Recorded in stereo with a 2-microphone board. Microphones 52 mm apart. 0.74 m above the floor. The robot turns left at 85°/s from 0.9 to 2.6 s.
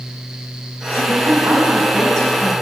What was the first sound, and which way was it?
A woman speaking, 90° right.